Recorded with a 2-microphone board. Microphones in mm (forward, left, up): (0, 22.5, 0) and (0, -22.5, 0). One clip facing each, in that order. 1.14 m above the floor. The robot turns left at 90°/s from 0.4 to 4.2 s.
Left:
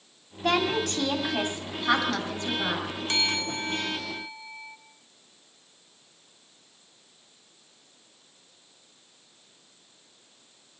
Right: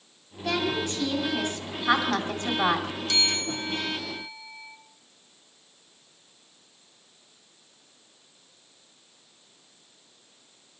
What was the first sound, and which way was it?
A woman speaking, 115° left.